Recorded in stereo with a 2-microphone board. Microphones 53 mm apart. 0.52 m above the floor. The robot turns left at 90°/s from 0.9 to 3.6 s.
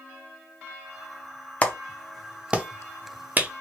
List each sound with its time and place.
1.6 s a clap: 25° left (ahead or behind), 0.6 m; by 3.6 s 25° right (ahead or behind), 0.6 m